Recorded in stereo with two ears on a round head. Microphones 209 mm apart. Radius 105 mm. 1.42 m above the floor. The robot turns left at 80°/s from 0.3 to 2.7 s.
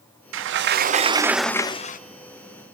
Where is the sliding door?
90° right, 0.7 m; by 2.0 s 135° left, 0.7 m.